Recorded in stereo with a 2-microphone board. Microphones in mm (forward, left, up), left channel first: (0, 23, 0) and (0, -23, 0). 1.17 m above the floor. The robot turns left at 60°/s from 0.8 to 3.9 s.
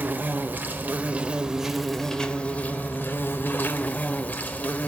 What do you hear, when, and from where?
0.0 s an insect: 120° right, 1.2 m; by 4.9 s 55° left, 1.2 m